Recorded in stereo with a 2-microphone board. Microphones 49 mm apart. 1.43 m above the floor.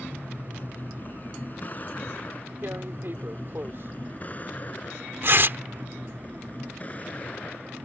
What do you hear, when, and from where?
0.0 s a vehicle: 40° left (ahead or behind); by 7.8 s 30° left (ahead or behind)
2.6 s tearing paper: 50° right (ahead or behind)